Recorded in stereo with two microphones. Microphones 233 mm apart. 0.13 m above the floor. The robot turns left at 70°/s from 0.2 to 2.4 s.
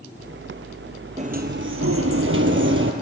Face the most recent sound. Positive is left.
turn(degrees=-115)